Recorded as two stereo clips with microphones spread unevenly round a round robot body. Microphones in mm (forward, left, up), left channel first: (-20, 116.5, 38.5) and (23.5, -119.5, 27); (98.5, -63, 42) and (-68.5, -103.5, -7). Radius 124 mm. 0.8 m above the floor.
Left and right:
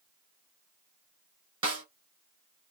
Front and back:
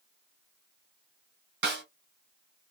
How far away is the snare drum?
About 1.9 m.